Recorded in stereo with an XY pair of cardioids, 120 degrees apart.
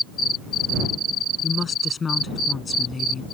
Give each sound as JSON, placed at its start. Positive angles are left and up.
{"t": 1.4, "sound": "a woman speaking", "azimuth_deg": 30}